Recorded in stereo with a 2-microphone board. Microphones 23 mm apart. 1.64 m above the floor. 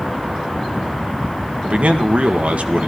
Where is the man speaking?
80° right, 1.8 m.